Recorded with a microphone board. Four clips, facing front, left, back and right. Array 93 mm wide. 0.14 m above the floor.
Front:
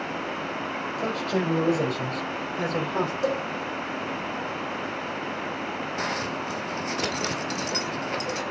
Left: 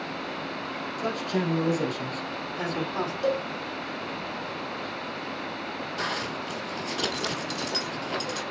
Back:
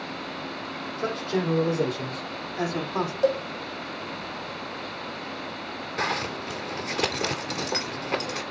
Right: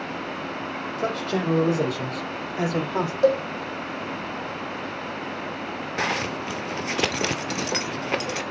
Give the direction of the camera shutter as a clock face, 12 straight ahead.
No camera shutter in this recording.